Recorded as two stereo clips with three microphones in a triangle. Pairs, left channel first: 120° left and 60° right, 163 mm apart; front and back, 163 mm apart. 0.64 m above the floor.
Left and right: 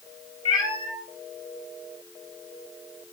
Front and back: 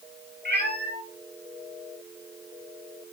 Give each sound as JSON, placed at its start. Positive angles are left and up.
{"t": 0.5, "sound": "a cat meowing", "azimuth_deg": -175, "distance_m": 3.5}